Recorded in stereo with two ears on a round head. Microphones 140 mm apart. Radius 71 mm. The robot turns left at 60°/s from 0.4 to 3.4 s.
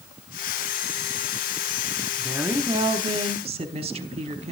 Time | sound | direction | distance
2.2 | a woman speaking | straight ahead | 1.1 m